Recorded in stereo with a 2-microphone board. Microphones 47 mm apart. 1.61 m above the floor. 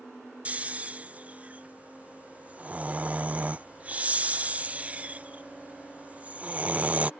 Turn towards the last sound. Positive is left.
turn(degrees=-30)  # may be behind; listen again after turning